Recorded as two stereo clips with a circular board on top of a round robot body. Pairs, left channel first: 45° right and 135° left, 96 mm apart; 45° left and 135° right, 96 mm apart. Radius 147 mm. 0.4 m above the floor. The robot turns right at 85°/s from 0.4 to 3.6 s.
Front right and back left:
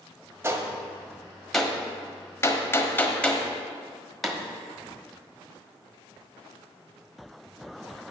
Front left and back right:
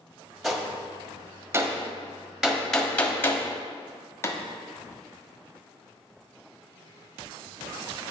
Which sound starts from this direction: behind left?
A gunshot, at 0.4 s.